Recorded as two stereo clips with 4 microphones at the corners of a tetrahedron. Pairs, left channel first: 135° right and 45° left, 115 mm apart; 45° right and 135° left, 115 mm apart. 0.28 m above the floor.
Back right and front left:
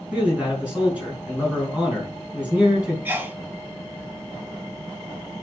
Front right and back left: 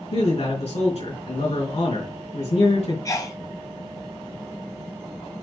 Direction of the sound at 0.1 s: 35° right.